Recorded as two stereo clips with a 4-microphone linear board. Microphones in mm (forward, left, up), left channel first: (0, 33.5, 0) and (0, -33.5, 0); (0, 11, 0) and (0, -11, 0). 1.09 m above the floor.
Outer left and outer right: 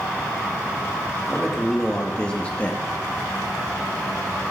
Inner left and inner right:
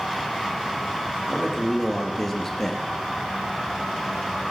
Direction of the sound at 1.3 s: Centre (ahead or behind).